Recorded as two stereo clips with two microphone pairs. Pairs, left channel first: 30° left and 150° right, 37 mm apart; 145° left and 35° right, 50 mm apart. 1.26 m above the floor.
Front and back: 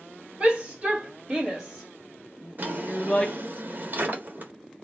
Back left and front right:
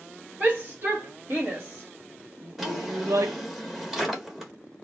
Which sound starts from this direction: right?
A shout, at 0.4 s.